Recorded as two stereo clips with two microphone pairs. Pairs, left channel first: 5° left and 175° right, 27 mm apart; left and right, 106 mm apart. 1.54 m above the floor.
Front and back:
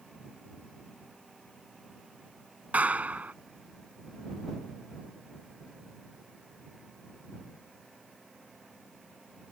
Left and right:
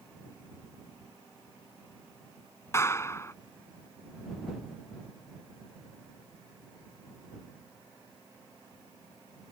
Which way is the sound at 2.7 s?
155° left.